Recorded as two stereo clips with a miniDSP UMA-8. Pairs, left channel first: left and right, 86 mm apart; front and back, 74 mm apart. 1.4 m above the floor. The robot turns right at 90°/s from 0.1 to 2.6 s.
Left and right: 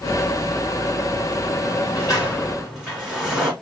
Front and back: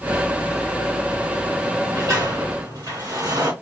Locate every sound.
1.6 s a sliding door: 100° left, 3 m; by 3.5 s 175° right, 3 m